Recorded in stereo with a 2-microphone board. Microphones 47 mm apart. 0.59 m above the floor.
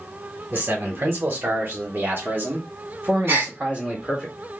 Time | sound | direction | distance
0.5 | a man speaking | 50° right (ahead or behind) | 1.6 m
3.3 | a gasp | 55° right (ahead or behind) | 2 m